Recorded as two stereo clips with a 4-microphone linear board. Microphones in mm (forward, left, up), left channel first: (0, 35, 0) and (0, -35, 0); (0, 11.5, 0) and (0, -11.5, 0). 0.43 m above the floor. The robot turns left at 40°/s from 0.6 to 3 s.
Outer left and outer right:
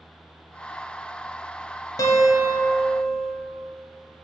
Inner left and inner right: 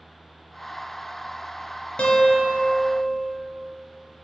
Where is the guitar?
115° left, 1.0 m; by 3.3 s 75° left, 1.0 m.